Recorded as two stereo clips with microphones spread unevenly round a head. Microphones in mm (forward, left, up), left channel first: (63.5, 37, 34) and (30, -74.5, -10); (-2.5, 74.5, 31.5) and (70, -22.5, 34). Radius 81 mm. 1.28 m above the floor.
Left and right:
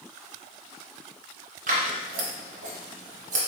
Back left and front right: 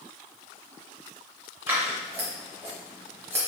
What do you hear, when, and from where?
1.7 s scissors: 130° right, 0.9 m